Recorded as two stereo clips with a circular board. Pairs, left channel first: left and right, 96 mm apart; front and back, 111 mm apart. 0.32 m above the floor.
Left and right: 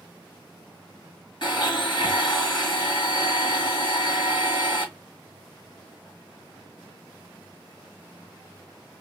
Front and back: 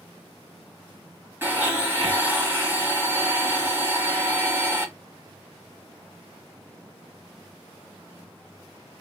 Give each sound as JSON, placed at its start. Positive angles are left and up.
{"t": 1.4, "sound": "a blender", "azimuth_deg": 110, "distance_m": 1.7}